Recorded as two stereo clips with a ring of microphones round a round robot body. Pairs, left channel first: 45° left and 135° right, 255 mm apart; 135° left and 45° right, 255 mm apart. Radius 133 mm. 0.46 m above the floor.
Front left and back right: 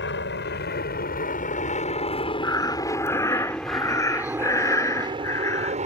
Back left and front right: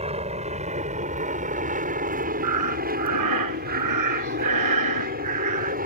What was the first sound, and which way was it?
An aircraft, 15° left.